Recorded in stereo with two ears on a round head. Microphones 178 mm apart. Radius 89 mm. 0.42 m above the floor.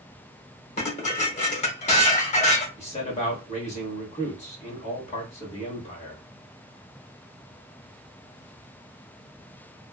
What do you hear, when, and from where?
0.8 s dishes clattering: 35° left (ahead or behind), 0.8 m
2.8 s a man speaking: 35° left (ahead or behind), 1.2 m